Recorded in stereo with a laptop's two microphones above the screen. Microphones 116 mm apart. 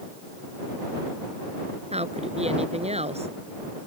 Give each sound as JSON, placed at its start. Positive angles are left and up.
{"t": 1.9, "sound": "a woman speaking", "side_deg": -65}